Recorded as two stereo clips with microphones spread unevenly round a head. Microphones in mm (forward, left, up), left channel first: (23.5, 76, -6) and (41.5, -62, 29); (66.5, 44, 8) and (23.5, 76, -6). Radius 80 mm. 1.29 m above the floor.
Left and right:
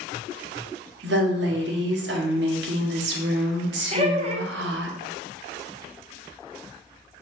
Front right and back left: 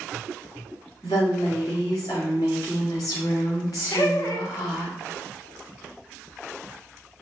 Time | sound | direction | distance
1.0 | a woman speaking | 95° right | 0.9 m
3.9 | laughter | 35° right | 0.9 m